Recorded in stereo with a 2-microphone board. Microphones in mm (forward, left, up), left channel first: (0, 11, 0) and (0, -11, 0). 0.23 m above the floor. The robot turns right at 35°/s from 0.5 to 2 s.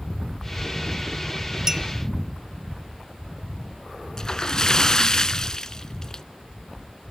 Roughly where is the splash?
Left.